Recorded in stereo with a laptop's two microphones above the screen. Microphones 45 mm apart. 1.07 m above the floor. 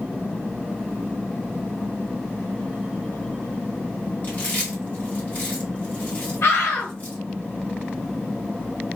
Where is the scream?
75° left (ahead or behind), 1.8 m.